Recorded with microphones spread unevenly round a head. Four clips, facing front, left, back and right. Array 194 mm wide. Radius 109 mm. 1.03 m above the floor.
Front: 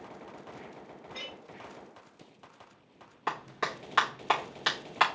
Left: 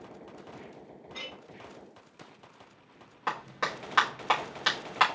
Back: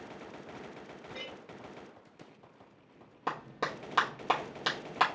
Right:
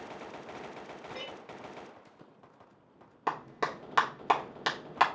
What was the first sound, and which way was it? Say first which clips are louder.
A clink: even, even; 165° right.